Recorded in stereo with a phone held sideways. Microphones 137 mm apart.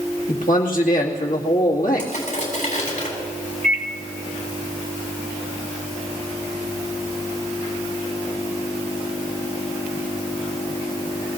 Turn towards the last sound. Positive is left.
turn(degrees=-65)  # may be behind; listen again after turning